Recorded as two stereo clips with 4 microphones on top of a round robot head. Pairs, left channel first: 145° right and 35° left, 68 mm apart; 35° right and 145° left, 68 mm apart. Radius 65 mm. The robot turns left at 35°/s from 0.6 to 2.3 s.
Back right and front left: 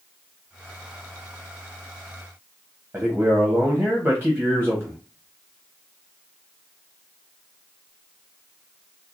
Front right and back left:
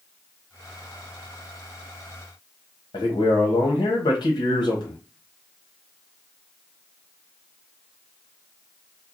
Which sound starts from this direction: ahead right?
A man speaking, at 2.9 s.